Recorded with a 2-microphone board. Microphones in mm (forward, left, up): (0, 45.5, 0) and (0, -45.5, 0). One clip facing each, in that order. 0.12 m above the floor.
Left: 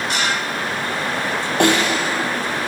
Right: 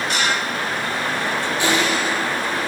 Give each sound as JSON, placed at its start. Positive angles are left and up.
{"t": 1.6, "sound": "a snare drum", "side_deg": 60, "distance_m": 1.2}